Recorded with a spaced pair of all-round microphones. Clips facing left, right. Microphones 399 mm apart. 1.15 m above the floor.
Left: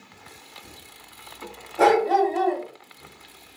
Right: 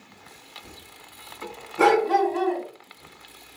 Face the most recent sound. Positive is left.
turn(degrees=-15)  # may be behind; listen again after turning